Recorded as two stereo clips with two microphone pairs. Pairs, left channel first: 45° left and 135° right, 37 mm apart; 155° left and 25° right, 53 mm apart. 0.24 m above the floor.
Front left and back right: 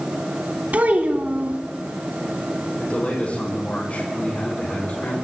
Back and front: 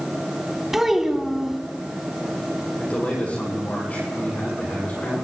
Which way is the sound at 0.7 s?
110° right.